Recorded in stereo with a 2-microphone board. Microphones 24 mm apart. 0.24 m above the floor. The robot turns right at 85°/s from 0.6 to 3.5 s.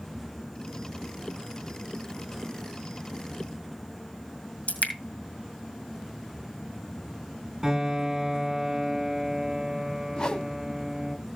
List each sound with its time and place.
4.7 s dripping: 70° left (ahead or behind), 1.9 m
7.6 s a piano: 15° right (ahead or behind), 2.5 m
10.2 s a whoosh: 35° left (ahead or behind), 0.7 m